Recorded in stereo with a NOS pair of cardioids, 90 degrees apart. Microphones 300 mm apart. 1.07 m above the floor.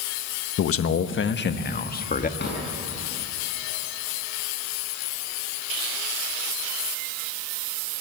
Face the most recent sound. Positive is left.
turn(degrees=35)